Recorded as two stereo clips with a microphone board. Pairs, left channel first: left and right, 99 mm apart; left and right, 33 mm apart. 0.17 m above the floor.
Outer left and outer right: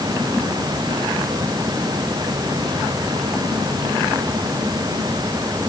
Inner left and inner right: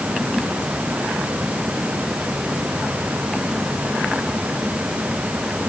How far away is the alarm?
I don't hear an alarm.